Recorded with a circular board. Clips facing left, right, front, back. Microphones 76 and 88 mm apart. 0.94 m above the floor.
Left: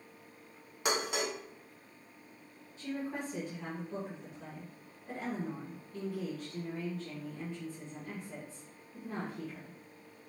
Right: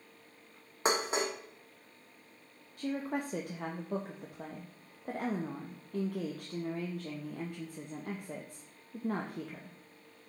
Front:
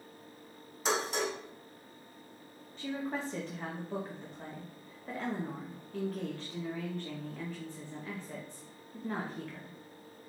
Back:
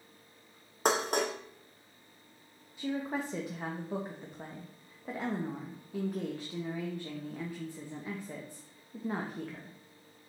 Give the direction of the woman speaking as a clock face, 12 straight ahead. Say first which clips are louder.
Right 3 dB, back 2 dB; 3 o'clock.